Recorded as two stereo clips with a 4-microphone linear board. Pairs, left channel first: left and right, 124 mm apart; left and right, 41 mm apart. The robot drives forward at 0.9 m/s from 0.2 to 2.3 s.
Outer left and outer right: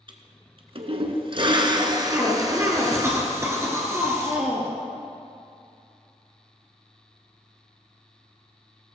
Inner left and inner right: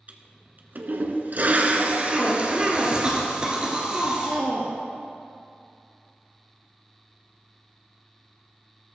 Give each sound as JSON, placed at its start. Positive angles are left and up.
{"t": 0.1, "sound": "a toilet flushing", "side_deg": -40, "distance_m": 1.3}
{"t": 2.1, "sound": "a cough", "side_deg": -25, "distance_m": 2.0}